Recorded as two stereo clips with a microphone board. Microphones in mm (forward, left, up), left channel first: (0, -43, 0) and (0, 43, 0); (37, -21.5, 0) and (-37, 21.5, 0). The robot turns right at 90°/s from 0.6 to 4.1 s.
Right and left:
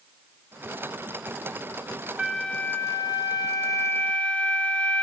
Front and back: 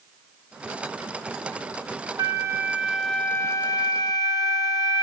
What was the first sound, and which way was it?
A flute, 170° left.